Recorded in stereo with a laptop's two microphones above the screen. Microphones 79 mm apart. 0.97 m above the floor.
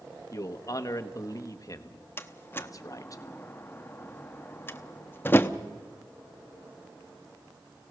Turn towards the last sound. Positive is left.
turn(degrees=25)  # may be behind; listen again after turning